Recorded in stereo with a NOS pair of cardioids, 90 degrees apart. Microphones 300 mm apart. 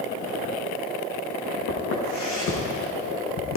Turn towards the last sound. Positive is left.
turn(degrees=60)